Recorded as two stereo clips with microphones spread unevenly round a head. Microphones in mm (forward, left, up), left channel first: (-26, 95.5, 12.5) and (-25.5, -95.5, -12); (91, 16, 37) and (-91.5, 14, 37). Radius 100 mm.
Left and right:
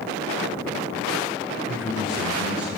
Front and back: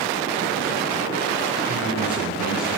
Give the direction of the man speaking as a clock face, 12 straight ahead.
12 o'clock.